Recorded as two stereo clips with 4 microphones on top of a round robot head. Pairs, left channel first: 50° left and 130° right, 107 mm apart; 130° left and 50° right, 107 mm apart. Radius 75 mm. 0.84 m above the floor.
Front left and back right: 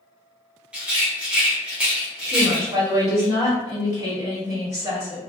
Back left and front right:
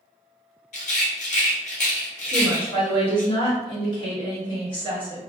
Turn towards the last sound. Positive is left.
turn(degrees=170)